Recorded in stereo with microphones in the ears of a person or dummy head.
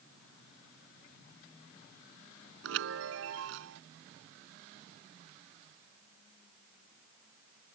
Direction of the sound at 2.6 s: 75° right (ahead or behind).